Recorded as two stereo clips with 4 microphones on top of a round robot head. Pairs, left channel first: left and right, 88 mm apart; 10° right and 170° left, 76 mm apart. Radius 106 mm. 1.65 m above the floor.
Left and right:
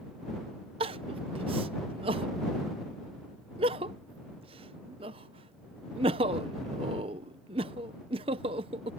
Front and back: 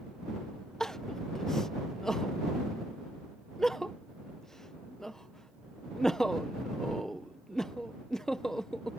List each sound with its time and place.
0.8 s crying: 100° right